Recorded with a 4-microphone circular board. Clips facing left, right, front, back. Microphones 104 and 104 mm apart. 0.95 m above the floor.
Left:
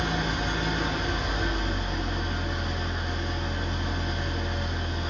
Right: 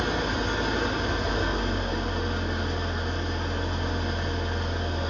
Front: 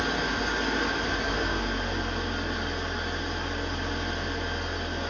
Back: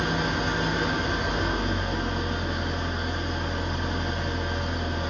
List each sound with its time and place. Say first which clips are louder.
0.0 s an engine running: right 2 dB, back 2 dB; 105° right, 0.8 m